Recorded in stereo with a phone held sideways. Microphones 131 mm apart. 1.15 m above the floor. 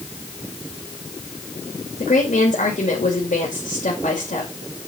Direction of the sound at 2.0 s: 75° left (ahead or behind).